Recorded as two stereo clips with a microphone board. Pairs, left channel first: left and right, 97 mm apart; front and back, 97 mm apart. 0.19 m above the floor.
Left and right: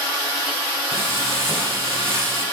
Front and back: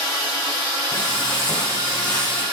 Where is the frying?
80° right, 8 m.